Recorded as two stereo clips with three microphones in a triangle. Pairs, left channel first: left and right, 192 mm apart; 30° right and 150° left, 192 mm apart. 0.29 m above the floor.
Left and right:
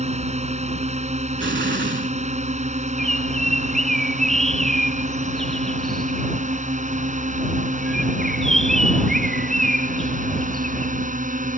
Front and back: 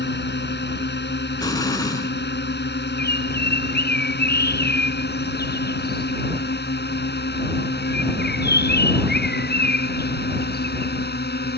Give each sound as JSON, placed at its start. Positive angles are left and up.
{"t": 0.0, "sound": "a drone", "azimuth_deg": -40}
{"t": 1.4, "sound": "an explosion", "azimuth_deg": -100}
{"t": 3.0, "sound": "a bird", "azimuth_deg": 0}